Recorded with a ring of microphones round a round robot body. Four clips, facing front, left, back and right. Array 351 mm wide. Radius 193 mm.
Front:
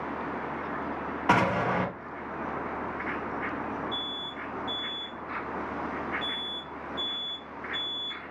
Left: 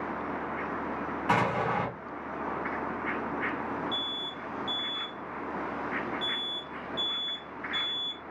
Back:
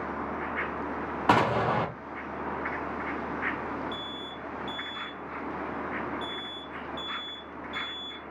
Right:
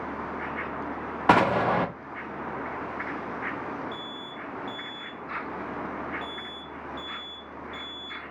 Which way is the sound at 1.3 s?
95° right.